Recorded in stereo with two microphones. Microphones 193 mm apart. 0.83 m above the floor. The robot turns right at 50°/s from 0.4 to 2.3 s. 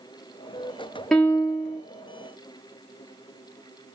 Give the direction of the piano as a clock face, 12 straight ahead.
12 o'clock.